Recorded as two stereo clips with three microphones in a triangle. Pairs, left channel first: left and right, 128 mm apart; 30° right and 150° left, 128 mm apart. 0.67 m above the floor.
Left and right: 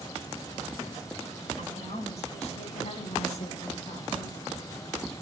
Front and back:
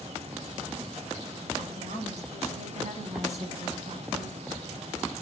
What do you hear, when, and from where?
1.6 s a woman speaking: 125° left, 3 m; by 4.4 s 120° left, 7 m